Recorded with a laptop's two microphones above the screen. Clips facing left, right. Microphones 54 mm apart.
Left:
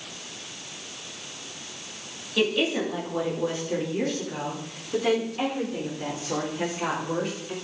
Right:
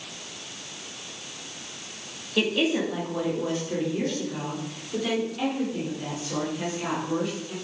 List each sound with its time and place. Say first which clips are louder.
2.4 s a woman speaking: even; 5° right (ahead or behind), 2 m; by 7.5 s 35° left (ahead or behind), 5.5 m